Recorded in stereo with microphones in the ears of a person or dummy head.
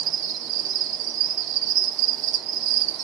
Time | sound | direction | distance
0.0 | an insect | 45° right (ahead or behind) | 1.4 m